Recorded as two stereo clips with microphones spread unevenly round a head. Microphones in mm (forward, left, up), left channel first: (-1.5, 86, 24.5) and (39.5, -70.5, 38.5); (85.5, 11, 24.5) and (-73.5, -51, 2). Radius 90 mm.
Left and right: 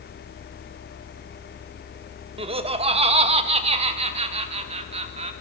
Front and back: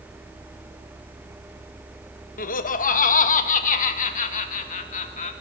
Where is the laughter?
20° right, 1.8 m; by 5.3 s 25° right, 4 m.